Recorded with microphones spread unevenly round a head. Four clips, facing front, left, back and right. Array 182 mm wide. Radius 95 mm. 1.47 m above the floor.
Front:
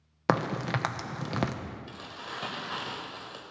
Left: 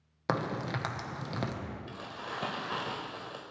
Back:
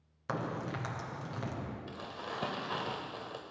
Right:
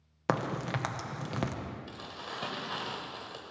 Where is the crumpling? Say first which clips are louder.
Left 2 dB, even; 160° left, 1.5 m.